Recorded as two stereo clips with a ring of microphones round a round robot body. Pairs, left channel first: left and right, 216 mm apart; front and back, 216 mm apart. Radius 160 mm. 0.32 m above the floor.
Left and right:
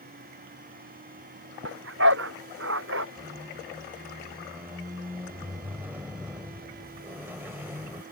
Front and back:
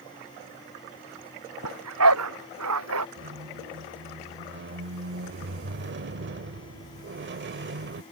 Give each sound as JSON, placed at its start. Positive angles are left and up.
{"t": 1.6, "sound": "a dog barking", "azimuth_deg": -145}
{"t": 3.2, "sound": "a squeak", "azimuth_deg": -170}